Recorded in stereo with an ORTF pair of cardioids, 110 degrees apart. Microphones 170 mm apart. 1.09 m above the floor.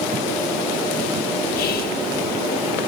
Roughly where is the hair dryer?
I don't hear a hair dryer.